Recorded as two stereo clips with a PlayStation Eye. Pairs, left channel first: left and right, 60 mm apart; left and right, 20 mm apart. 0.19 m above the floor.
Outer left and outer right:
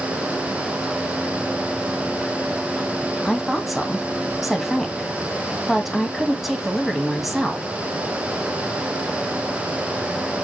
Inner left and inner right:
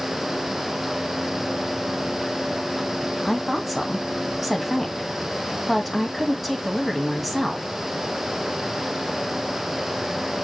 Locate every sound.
3.2 s a woman speaking: centre (ahead or behind), 1.6 m